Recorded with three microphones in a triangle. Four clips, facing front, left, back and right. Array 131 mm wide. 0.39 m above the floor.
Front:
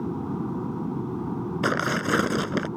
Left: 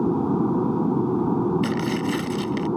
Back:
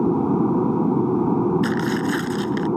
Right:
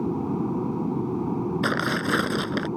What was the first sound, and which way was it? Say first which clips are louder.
An aircraft: left 5 dB, back 11 dB; 165° left.